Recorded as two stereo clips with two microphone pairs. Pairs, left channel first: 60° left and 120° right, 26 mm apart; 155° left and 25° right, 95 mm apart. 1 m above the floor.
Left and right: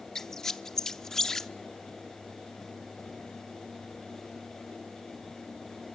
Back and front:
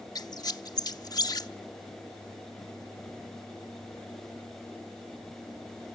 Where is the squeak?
125° left, 0.7 m.